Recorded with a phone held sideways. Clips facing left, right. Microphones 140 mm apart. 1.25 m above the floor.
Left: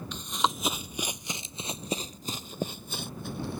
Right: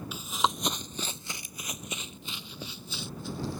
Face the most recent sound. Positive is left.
turn(degrees=60)  # may be behind; listen again after turning